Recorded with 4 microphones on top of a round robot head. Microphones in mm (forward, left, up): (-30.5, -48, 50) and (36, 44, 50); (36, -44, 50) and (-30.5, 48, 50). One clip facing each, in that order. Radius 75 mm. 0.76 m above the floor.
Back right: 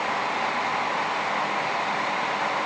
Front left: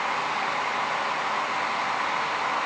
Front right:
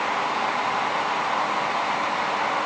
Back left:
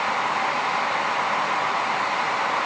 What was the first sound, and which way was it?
Only background noise.